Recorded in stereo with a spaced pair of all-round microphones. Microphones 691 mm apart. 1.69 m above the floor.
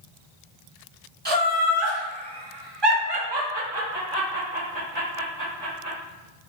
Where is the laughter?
15° right (ahead or behind), 1.2 m; by 6.0 s 20° right (ahead or behind), 1.9 m.